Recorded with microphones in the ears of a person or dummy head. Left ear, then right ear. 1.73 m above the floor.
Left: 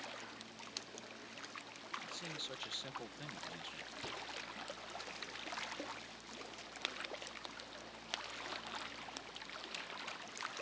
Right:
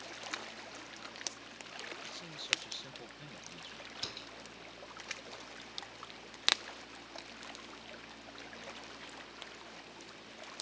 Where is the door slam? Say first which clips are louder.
Right 5 dB; 65° right (ahead or behind).